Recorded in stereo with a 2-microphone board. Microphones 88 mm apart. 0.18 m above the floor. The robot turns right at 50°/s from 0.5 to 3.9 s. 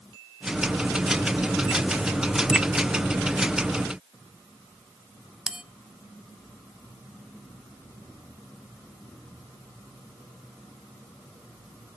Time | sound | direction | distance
5.5 | a bell | 10° right (ahead or behind) | 0.8 m